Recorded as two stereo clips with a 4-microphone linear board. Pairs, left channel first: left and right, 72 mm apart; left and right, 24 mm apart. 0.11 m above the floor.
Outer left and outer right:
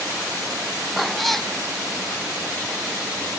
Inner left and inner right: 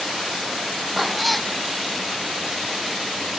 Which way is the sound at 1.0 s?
Centre (ahead or behind).